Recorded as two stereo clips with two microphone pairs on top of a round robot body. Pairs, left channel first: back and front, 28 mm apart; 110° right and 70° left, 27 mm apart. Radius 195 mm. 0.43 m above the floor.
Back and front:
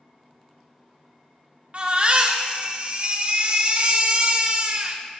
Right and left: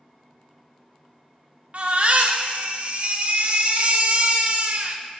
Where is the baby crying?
40° left, 1.3 m.